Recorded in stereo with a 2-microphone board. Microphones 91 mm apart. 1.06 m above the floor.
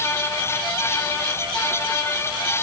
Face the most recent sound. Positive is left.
No sound to turn to.